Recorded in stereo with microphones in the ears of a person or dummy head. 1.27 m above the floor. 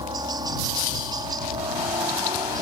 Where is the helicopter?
15° right (ahead or behind).